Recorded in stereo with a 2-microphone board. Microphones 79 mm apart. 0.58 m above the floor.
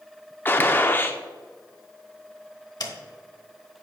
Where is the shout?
I don't hear a shout.